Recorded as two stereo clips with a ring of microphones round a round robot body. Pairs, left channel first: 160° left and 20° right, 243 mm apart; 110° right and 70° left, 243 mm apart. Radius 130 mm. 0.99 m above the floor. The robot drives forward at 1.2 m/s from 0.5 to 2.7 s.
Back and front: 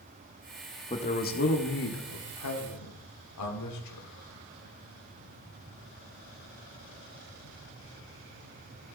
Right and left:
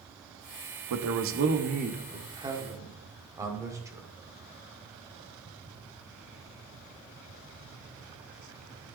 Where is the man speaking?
85° left, 1.5 m; by 4.1 s 145° left, 2.5 m.